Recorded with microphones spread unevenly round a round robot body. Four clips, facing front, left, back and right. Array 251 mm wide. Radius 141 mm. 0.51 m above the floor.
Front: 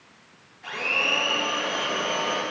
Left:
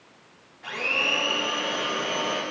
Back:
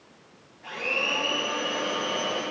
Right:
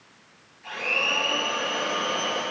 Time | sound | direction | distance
0.6 | a blender | 75° left | 3 m